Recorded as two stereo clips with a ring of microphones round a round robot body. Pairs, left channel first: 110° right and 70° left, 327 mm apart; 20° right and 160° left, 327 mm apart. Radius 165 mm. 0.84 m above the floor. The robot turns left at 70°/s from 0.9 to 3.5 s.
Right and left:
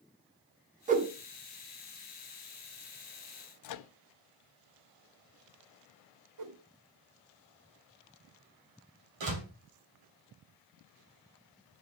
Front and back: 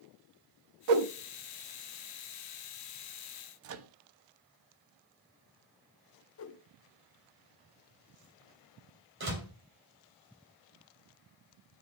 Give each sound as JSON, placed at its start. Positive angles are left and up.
{"t": 0.9, "sound": "a whoosh", "azimuth_deg": 135, "distance_m": 0.8}
{"t": 3.6, "sound": "a microwave", "azimuth_deg": -150, "distance_m": 0.5}
{"t": 6.4, "sound": "a whoosh", "azimuth_deg": 30, "distance_m": 0.8}
{"t": 9.2, "sound": "a door slam", "azimuth_deg": 100, "distance_m": 2.5}